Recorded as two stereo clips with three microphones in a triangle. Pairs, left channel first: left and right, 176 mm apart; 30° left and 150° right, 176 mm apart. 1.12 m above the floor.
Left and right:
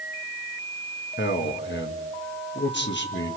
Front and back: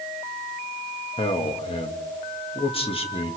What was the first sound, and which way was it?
A man speaking, 85° left.